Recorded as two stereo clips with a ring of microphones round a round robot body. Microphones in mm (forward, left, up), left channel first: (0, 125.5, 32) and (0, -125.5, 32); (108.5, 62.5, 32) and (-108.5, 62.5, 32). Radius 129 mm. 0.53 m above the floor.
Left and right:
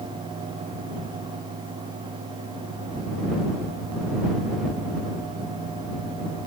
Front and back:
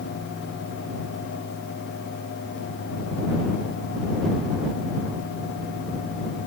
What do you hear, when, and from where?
Only background noise.